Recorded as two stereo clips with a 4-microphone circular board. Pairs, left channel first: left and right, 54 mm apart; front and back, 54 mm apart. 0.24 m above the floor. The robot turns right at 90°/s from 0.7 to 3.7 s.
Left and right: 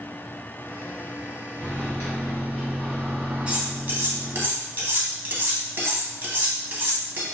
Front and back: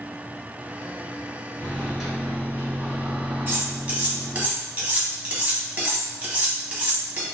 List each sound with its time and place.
1.6 s a microwave: 55° left, 1.4 m; by 4.5 s 115° right, 1.4 m
3.5 s cutlery clinking: 150° right, 0.8 m; by 7.2 s 130° right, 0.8 m